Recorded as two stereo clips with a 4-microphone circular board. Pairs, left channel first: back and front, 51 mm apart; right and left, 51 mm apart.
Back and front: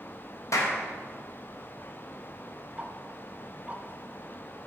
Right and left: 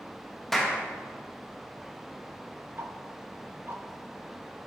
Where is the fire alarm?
I don't hear a fire alarm.